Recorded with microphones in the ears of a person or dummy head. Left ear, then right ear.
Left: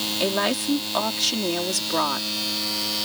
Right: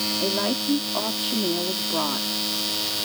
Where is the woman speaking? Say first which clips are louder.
Left 1 dB; 70° left (ahead or behind).